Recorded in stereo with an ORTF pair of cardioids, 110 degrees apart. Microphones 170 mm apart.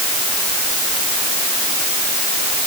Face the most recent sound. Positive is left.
No sound to turn to.